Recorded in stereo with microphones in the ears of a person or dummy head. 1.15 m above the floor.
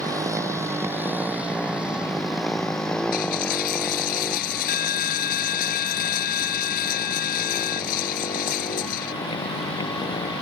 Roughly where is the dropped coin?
Left.